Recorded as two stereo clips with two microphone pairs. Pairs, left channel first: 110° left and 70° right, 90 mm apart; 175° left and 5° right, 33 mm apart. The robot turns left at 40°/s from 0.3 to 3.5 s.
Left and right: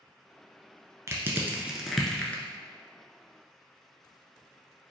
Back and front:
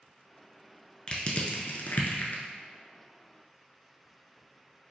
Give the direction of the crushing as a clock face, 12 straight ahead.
4 o'clock.